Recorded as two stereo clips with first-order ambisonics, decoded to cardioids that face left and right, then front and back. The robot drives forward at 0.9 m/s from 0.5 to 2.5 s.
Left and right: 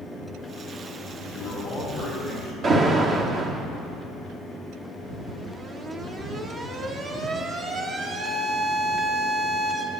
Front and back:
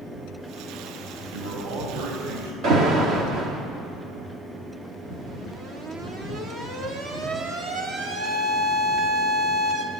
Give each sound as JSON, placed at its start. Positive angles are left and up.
{"t": 1.3, "sound": "a man speaking", "azimuth_deg": 165, "distance_m": 4.5}
{"t": 2.6, "sound": "an alarm", "azimuth_deg": -150, "distance_m": 1.3}